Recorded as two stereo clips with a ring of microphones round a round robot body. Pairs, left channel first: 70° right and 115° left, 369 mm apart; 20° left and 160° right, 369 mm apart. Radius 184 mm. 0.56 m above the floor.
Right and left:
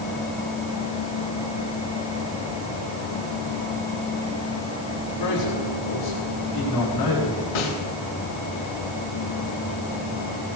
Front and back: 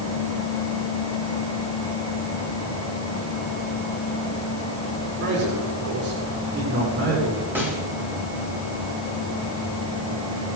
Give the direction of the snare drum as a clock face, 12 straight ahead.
2 o'clock.